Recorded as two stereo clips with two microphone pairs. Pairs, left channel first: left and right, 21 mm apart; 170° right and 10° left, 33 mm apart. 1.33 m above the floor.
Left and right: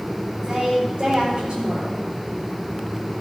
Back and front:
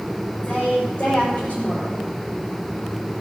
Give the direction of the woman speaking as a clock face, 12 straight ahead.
4 o'clock.